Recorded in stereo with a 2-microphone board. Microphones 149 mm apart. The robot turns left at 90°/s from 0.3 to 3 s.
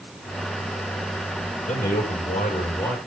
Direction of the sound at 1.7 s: 130° left.